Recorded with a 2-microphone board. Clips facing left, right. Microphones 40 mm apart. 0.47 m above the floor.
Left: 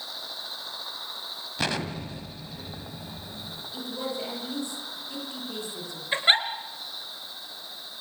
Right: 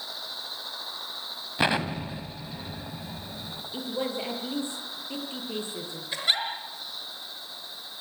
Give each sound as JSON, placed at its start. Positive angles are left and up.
{"t": 1.6, "sound": "an explosion", "side_deg": -20, "distance_m": 1.8}
{"t": 3.7, "sound": "a woman speaking", "side_deg": -25, "distance_m": 8.5}
{"t": 6.1, "sound": "a giggle", "side_deg": 35, "distance_m": 3.5}